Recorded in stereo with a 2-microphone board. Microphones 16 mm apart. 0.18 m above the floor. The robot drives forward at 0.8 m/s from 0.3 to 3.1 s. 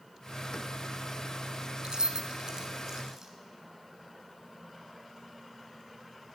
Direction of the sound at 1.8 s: 45° right (ahead or behind).